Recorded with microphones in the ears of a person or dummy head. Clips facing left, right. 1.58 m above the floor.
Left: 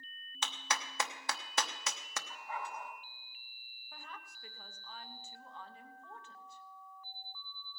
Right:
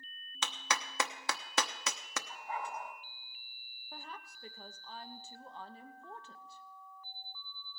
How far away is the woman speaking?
About 0.8 m.